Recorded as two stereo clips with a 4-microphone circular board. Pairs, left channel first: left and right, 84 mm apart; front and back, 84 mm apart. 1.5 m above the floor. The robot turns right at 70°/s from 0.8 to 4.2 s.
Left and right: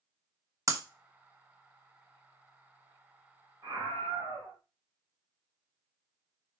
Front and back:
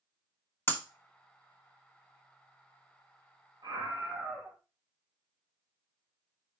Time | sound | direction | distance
0.7 | breaking glass | 55° right | 1.0 m
3.6 | a scream | 140° right | 3 m